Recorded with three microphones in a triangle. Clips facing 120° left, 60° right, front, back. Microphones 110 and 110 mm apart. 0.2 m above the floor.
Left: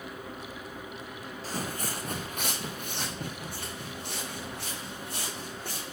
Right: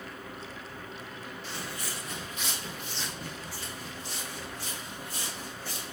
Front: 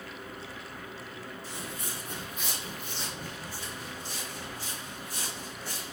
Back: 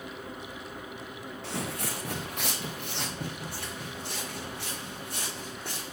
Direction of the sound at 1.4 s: 170° left.